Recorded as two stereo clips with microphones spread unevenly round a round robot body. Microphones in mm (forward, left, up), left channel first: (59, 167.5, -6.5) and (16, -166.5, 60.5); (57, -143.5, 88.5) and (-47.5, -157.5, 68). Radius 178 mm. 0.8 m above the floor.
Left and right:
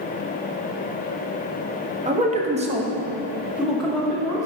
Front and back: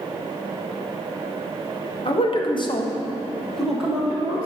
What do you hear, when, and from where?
2.0 s a man speaking: 25° right, 1.5 m; by 4.5 s 150° left, 1.3 m